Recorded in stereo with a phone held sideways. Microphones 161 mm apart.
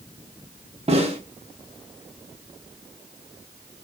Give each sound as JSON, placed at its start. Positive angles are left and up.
{"t": 0.9, "sound": "a snare drum", "side_deg": -40, "distance_m": 0.6}